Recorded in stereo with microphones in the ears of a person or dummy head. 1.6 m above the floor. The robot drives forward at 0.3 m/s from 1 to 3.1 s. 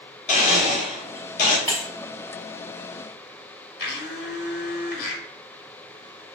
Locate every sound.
0.3 s a blender: 40° left (ahead or behind), 1.3 m; by 1.6 s 45° left (ahead or behind), 1.1 m
1.7 s breaking glass: 5° left (ahead or behind), 1.3 m
3.8 s a blender: 60° left (ahead or behind), 1.1 m